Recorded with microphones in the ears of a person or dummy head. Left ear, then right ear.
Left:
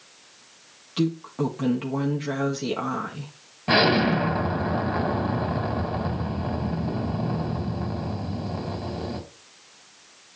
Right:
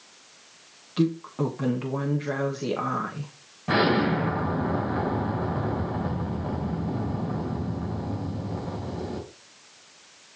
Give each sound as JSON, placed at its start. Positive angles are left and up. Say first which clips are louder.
{"t": 1.0, "sound": "a woman speaking", "louder": "even", "side_deg": 0, "distance_m": 1.1}
{"t": 3.7, "sound": "an explosion", "louder": "left 3 dB", "side_deg": 40, "distance_m": 2.0}